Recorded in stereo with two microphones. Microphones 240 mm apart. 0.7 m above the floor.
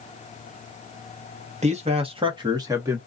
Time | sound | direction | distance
1.6 | a man speaking | 30° right (ahead or behind) | 0.8 m